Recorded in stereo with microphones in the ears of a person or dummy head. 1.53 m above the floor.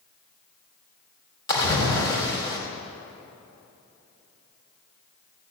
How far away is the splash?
About 3.5 m.